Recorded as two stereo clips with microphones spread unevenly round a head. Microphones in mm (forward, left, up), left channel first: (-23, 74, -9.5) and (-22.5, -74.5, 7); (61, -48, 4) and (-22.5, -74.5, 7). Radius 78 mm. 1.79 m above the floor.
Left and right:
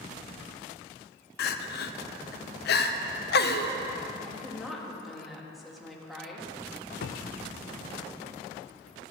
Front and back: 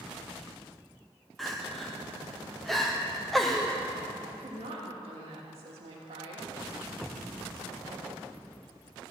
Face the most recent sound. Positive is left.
turn(degrees=110)